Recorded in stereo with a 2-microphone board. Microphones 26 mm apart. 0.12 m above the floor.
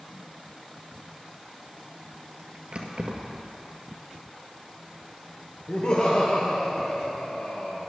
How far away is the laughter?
About 2.5 m.